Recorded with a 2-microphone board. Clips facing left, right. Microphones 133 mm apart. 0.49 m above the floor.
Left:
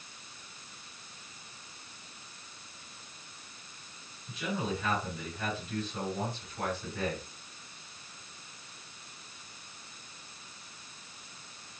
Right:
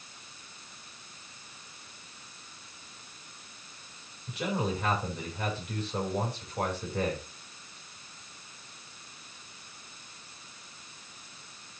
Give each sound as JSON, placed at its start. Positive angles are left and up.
{"t": 4.3, "sound": "a man speaking", "side_deg": -65, "distance_m": 5.5}